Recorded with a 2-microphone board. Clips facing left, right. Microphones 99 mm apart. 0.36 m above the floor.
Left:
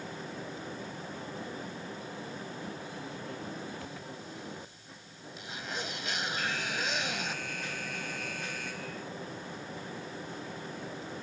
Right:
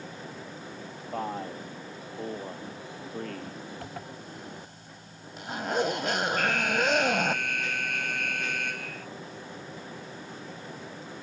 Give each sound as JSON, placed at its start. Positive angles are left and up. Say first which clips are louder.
{"t": 1.1, "sound": "a man speaking", "louder": "right 12 dB", "side_deg": -75}
{"t": 3.8, "sound": "a zipper", "louder": "right 2 dB", "side_deg": -65}
{"t": 6.4, "sound": "an alarm", "louder": "right 8 dB", "side_deg": -75}